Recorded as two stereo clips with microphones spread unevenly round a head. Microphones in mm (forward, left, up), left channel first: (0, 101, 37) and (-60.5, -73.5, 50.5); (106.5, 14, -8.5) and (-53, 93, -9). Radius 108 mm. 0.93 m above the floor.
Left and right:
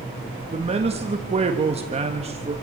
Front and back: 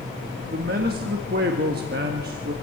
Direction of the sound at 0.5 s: 165° right.